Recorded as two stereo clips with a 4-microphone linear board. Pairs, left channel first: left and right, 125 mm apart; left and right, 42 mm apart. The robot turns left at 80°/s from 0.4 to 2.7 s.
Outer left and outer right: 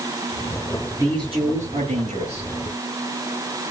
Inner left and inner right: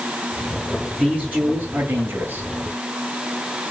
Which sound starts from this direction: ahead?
A man speaking, at 1.0 s.